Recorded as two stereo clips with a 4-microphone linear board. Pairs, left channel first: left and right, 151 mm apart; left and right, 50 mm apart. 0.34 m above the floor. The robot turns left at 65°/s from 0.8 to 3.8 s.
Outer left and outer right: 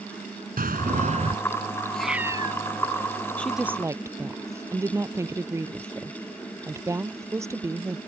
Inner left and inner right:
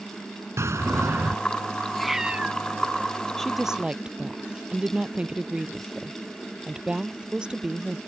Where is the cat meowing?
10° left; by 2.6 s 40° right.